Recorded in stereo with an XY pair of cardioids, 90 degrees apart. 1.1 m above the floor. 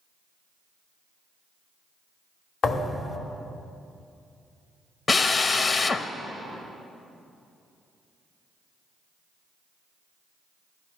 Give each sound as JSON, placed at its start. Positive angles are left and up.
{"t": 2.6, "sound": "a thud", "azimuth_deg": 65, "distance_m": 1.4}
{"t": 5.1, "sound": "a drill", "azimuth_deg": 45, "distance_m": 0.8}